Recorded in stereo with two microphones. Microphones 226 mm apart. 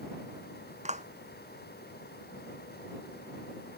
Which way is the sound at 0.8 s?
30° right (ahead or behind).